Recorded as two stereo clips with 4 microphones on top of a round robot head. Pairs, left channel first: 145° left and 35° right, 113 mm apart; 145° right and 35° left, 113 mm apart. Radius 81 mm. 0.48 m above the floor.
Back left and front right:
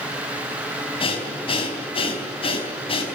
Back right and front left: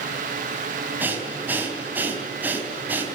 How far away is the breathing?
About 4 m.